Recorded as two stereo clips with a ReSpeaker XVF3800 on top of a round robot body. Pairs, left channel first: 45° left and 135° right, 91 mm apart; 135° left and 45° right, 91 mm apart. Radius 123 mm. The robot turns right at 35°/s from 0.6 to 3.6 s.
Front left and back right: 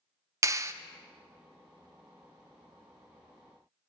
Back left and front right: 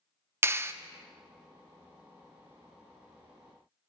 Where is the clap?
95° right, 0.7 m; by 0.7 s 90° right, 0.7 m.